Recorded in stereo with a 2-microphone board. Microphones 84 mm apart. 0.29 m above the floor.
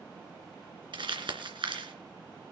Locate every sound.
0.9 s crumpling: 70° right (ahead or behind), 2.5 m